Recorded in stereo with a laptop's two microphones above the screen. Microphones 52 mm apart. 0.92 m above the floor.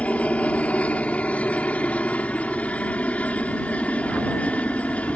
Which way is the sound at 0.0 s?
25° left (ahead or behind).